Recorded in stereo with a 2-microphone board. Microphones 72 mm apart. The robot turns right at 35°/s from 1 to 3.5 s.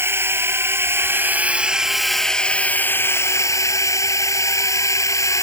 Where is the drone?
40° right; by 5.4 s 50° left.